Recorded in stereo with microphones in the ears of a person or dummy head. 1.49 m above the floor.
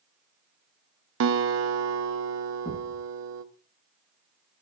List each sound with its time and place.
1.2 s a guitar: 65° right (ahead or behind), 0.9 m
2.6 s a thud: 5° right (ahead or behind), 9 m